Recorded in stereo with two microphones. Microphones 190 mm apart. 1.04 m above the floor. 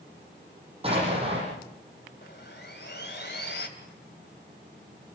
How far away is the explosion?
About 8.5 m.